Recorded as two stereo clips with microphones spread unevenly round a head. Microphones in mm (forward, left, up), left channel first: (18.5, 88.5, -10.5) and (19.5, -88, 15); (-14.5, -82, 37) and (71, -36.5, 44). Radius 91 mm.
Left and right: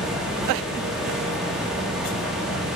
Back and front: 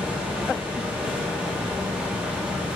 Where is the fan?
25° right, 0.8 m.